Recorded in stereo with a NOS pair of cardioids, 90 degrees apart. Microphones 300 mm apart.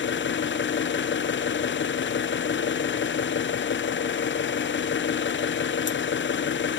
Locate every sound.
0.0 s an engine running: 40° left, 0.9 m